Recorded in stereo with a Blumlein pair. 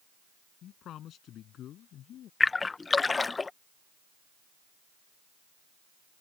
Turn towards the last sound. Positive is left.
turn(degrees=10)